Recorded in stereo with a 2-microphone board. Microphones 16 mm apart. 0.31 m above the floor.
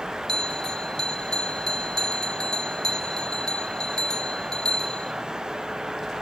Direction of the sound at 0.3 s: 55° left (ahead or behind).